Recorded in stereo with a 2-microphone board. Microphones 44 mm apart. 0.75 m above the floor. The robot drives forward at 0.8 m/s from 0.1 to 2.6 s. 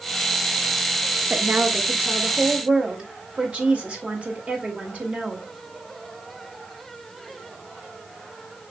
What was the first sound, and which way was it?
A woman speaking, 50° right (ahead or behind).